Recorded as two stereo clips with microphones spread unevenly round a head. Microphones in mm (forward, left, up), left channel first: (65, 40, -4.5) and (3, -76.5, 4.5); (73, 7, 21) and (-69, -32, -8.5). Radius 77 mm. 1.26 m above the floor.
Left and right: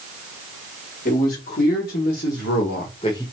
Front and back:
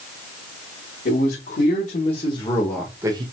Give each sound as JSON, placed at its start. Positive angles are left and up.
{"t": 1.1, "sound": "a man speaking", "azimuth_deg": 50, "distance_m": 2.5}